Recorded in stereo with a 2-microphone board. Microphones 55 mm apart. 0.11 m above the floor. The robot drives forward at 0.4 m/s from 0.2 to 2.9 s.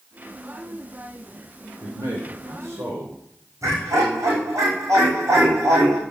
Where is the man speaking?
55° right (ahead or behind), 5 m; by 3.2 s 60° right (ahead or behind), 4.5 m.